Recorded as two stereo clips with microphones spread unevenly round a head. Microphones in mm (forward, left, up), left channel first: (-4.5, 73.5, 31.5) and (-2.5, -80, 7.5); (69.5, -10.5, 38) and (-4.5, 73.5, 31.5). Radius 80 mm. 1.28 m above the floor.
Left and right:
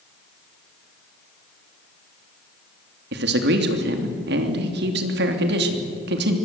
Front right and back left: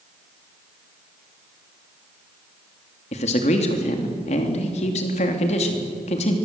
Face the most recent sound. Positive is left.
turn(degrees=-90)